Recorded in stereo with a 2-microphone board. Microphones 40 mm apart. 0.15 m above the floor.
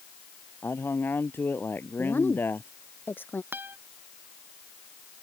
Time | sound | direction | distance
0.6 | a man speaking | 65° left (ahead or behind) | ?
2.0 | a woman speaking | 60° left (ahead or behind) | ?
3.5 | a guitar | 60° right (ahead or behind) | ?